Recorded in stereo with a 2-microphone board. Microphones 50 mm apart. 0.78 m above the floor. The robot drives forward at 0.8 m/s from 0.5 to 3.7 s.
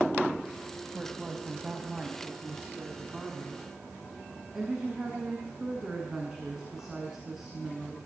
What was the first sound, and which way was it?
A woman speaking, 15° right (ahead or behind).